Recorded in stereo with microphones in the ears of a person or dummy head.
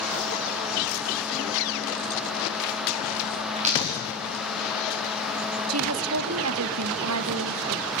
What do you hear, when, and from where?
3.6 s a dropped coin: 40° right (ahead or behind), 6.5 m
5.7 s a woman speaking: 75° right (ahead or behind), 1.0 m